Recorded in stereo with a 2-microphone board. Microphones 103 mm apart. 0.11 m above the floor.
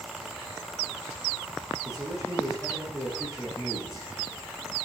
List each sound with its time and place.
1.9 s a man speaking: 5° right (ahead or behind), 7 m